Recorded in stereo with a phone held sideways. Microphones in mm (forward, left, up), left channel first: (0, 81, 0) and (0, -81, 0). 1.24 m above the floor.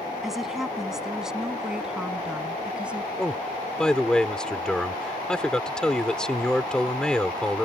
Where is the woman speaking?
Centre (ahead or behind); by 3.1 s 5° right (ahead or behind).